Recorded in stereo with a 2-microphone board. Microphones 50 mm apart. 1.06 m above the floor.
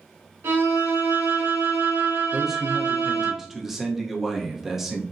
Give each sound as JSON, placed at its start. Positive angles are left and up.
{"t": 0.4, "sound": "a violin", "side_deg": -65, "distance_m": 1.7}
{"t": 2.3, "sound": "a man speaking", "side_deg": -5, "distance_m": 0.6}